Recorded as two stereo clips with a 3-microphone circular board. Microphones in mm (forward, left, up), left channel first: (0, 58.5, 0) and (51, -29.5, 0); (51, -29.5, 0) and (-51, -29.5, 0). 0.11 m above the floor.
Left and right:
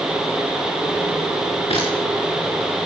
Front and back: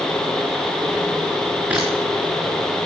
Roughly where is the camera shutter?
Left.